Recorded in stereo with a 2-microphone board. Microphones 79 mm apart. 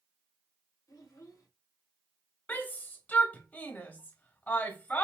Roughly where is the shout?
Left.